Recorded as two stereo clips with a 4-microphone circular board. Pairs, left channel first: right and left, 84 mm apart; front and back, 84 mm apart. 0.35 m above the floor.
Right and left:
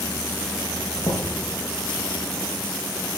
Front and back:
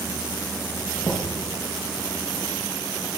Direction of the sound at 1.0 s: 125° right.